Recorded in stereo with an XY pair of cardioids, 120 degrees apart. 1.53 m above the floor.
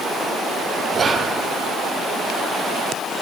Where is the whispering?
35° right, 0.5 m.